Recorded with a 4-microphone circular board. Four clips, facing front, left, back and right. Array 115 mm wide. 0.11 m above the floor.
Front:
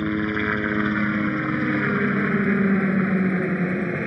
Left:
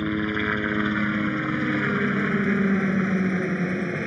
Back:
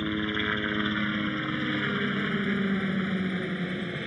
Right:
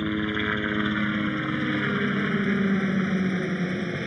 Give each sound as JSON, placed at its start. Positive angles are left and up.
{"t": 0.0, "sound": "a helicopter", "azimuth_deg": 15}